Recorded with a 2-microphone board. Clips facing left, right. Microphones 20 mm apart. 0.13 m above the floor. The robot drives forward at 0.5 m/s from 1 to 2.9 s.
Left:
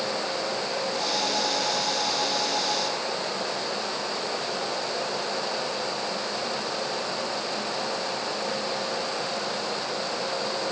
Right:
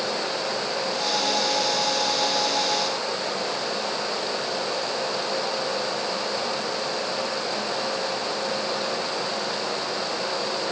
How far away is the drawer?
No drawer in this recording.